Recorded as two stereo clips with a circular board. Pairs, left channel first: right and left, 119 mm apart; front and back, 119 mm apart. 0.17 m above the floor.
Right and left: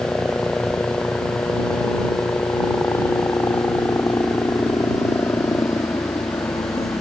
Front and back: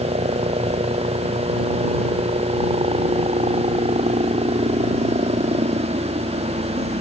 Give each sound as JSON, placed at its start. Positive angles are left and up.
{"t": 0.0, "sound": "a helicopter", "azimuth_deg": -170}